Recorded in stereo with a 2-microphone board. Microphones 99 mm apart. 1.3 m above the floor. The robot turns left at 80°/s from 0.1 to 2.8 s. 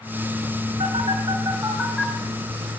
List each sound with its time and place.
0.8 s a phone buzzing: 80° right, 3 m; by 2.8 s 70° left (ahead or behind), 3 m